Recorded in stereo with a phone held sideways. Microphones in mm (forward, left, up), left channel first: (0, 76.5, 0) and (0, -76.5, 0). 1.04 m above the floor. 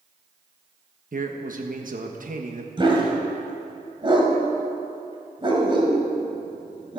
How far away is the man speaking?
About 1.2 m.